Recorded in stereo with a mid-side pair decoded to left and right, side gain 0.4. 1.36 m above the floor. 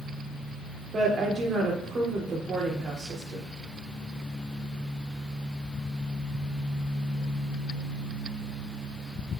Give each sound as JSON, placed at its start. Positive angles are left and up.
{"t": 0.9, "sound": "a woman speaking", "azimuth_deg": -55, "distance_m": 3.5}